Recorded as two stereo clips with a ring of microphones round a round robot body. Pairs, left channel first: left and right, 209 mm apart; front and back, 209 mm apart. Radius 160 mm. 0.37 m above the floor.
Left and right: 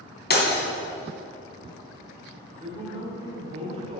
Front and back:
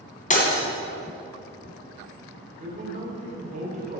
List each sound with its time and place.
0.3 s breaking glass: 50° left, 2.5 m
2.6 s a man speaking: 140° right, 1.9 m